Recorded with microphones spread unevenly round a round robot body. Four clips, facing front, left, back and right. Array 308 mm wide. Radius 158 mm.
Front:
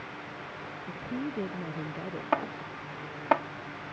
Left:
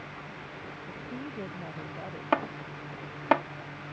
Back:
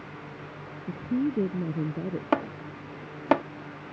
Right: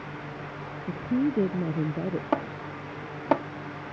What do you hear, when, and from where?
0.9 s a woman speaking: 125° right
2.3 s chopping: 160° right